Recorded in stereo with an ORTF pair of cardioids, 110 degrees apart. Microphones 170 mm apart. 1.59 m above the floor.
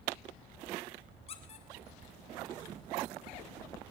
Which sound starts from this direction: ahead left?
A squeak, at 1.3 s.